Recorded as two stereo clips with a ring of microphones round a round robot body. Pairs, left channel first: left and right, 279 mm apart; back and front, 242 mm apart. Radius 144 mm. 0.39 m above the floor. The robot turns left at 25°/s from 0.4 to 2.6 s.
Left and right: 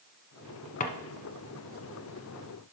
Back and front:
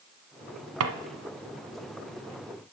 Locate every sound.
0.8 s a drawer: 25° left, 1.0 m